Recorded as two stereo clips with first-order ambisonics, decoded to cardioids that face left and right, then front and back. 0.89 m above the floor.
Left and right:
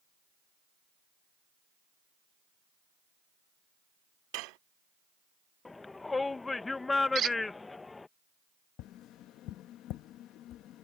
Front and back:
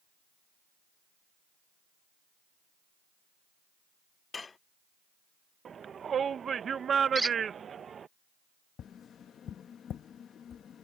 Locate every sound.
4.3 s dishes clattering: 75° right
5.7 s a shout: 155° left
7.2 s a squeak: 110° right
8.8 s tapping: 55° left